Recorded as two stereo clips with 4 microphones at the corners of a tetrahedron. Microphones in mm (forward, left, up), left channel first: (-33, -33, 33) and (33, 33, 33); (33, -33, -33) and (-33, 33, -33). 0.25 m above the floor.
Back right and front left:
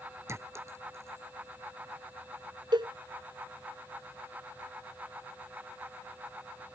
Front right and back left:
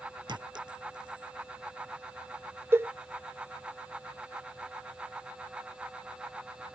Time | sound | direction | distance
0.3 | a clink | 105° left | ?
2.7 | a cowbell | 75° left | ?